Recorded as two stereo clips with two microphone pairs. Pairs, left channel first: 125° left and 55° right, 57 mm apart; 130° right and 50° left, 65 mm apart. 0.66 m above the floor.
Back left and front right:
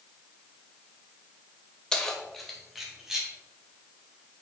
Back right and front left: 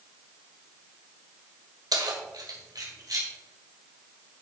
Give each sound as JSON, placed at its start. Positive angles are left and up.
{"t": 1.9, "sound": "keys jangling", "azimuth_deg": 50, "distance_m": 1.7}